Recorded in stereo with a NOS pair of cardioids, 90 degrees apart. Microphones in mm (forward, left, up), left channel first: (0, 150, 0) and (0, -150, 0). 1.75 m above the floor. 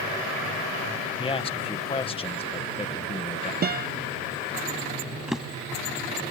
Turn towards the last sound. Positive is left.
turn(degrees=0)